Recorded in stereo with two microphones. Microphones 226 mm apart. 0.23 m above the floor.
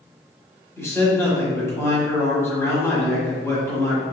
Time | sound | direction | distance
0.8 | a man speaking | 15° left (ahead or behind) | 1.1 m